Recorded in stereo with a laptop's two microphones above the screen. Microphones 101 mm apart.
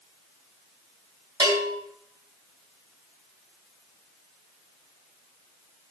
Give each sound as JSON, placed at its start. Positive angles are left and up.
{"t": 1.4, "sound": "a bell", "side_deg": -45, "distance_m": 3.5}